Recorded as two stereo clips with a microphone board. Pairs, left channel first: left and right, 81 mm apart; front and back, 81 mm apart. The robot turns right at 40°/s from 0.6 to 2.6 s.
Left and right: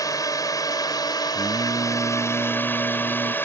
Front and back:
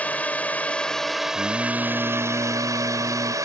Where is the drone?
65° left; by 3.4 s 145° left.